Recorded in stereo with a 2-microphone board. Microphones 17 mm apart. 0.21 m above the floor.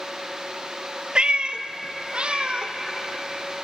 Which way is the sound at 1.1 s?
65° right (ahead or behind).